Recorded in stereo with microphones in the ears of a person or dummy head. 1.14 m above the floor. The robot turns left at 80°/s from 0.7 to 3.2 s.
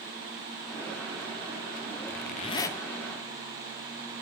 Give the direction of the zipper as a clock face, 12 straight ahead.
10 o'clock.